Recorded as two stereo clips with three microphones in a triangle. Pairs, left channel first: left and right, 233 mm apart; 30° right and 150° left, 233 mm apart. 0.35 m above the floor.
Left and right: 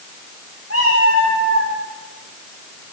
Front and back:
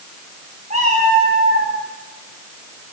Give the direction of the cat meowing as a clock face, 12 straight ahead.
9 o'clock.